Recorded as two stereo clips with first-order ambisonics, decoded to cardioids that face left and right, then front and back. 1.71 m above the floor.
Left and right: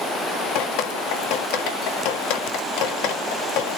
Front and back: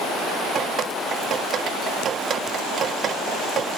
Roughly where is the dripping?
Behind left.